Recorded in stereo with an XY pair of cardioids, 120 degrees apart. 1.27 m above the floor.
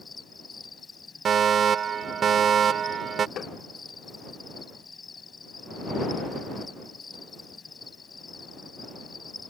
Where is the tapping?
55° left.